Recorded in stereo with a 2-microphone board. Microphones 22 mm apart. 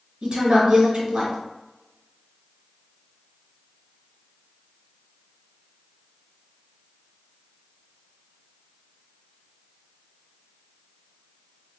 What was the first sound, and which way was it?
A woman speaking, 40° right (ahead or behind).